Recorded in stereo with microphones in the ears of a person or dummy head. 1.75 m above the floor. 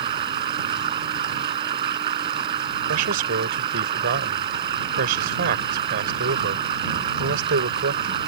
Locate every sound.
0.0 s running water: 30° right (ahead or behind)
2.9 s a man speaking: 55° right (ahead or behind)